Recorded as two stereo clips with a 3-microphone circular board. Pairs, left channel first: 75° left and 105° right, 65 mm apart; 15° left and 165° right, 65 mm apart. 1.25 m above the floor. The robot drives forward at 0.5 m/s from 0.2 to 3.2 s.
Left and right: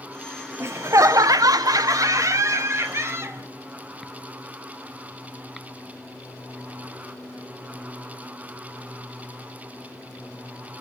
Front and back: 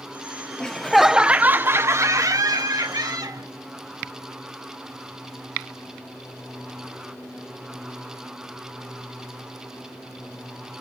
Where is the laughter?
60° right, 0.6 m; by 3.5 s 155° right, 1.1 m.